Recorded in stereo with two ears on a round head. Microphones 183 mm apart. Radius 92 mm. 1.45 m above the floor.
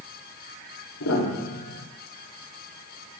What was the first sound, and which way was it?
A piano, 80° left.